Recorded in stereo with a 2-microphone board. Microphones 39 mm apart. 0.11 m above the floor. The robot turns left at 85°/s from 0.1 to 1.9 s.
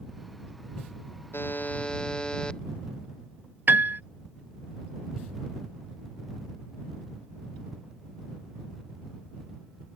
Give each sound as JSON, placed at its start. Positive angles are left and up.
{"t": 1.3, "sound": "a buzzer", "azimuth_deg": 70}
{"t": 3.7, "sound": "a piano", "side_deg": -55}